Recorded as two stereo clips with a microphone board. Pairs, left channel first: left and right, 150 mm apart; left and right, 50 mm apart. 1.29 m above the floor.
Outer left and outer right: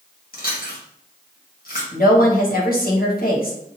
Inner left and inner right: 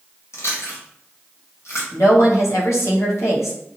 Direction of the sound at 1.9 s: 75° left (ahead or behind).